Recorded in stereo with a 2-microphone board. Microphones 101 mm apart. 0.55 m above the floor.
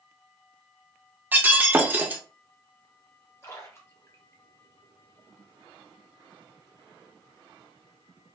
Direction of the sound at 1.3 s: 20° right (ahead or behind).